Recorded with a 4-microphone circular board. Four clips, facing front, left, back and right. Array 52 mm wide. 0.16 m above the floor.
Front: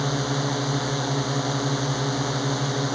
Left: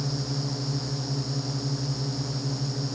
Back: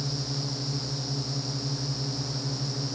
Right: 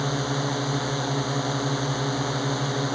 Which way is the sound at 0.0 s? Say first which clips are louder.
Right 6 dB, front 9 dB; 50° right.